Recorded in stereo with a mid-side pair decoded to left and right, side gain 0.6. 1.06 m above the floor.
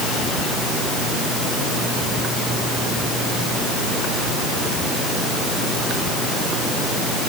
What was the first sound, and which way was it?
Only background noise.